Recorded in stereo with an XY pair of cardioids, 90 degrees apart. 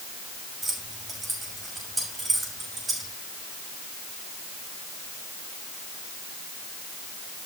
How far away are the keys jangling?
About 6 m.